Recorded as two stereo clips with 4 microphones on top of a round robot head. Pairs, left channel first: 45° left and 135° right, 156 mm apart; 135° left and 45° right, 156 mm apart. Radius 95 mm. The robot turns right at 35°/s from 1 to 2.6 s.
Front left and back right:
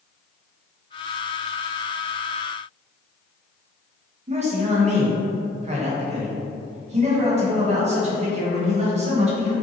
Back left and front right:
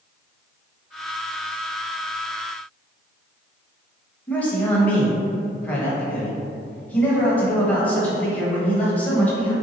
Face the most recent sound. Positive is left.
turn(degrees=-150)